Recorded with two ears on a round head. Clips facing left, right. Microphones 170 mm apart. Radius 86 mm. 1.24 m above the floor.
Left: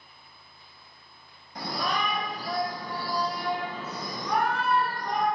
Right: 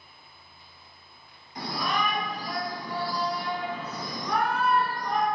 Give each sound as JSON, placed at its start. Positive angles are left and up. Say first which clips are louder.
{"t": 1.6, "sound": "a shout", "louder": "even", "side_deg": 30, "distance_m": 3.5}